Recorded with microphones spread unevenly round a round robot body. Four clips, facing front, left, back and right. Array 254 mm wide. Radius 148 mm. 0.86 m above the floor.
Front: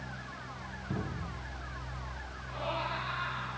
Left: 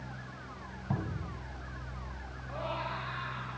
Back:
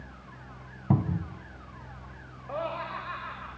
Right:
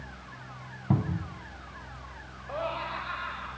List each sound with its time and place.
0.9 s a cupboard door: 150° right, 2 m
2.5 s laughter: 155° right, 5 m